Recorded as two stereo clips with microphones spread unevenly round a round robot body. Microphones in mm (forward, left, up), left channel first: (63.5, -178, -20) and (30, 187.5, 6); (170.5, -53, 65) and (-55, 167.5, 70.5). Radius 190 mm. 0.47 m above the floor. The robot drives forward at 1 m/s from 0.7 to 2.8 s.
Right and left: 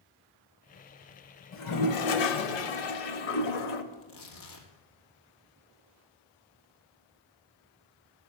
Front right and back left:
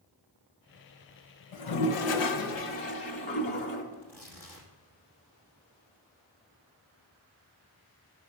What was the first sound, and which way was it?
A toilet flushing, 35° right.